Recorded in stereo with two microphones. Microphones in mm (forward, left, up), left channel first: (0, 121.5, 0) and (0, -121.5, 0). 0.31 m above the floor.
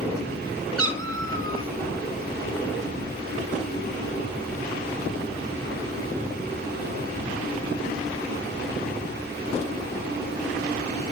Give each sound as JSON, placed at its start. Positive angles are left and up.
{"t": 0.8, "sound": "a cat meowing", "side_deg": -55, "distance_m": 2.5}